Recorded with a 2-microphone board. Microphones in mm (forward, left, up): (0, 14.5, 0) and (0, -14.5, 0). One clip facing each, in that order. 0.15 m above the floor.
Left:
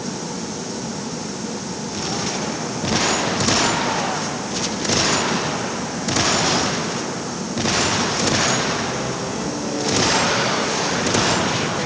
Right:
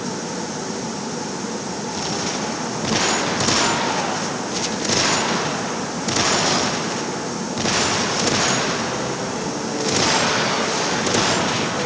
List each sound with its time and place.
Only background noise.